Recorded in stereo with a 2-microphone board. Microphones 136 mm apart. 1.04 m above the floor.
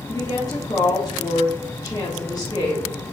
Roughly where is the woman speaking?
Left.